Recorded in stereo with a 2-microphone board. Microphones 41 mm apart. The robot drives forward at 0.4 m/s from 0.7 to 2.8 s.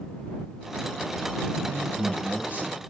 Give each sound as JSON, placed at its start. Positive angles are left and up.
{"t": 1.6, "sound": "a man speaking", "side_deg": -30, "distance_m": 8.5}